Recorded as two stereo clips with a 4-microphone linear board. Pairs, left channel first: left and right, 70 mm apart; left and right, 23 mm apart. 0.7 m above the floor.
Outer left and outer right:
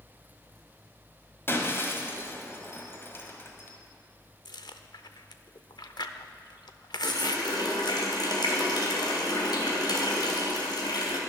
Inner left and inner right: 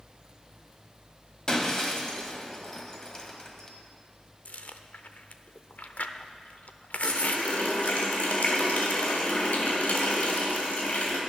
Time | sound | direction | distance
1.5 | breaking glass | 35° left (ahead or behind) | 1.7 m
4.5 | chewing | 80° left | 0.7 m
7.0 | a running tap | 75° left (ahead or behind) | 2.5 m